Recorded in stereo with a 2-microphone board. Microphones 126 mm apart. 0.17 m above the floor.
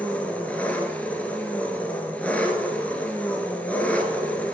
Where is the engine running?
10° left (ahead or behind), 2 m.